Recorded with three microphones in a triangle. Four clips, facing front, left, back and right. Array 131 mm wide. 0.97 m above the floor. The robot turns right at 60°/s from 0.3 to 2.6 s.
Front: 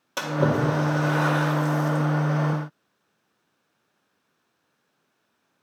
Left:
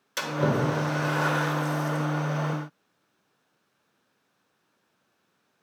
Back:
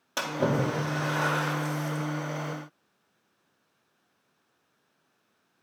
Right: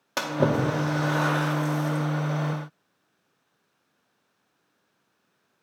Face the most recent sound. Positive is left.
turn(degrees=45)